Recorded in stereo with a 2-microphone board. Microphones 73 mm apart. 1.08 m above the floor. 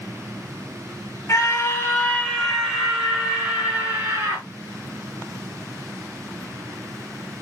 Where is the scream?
55° left (ahead or behind), 1.0 m; by 4.5 s 40° right (ahead or behind), 2.0 m.